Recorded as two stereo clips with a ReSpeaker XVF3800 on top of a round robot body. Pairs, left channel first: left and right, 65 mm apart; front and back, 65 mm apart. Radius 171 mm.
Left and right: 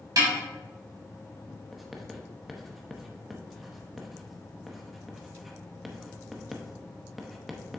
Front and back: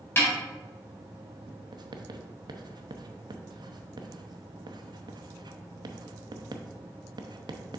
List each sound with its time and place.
0.2 s a snare drum: 60° right, 2.5 m
1.7 s writing: straight behind, 0.7 m